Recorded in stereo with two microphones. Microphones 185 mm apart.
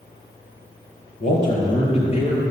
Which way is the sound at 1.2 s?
45° left (ahead or behind).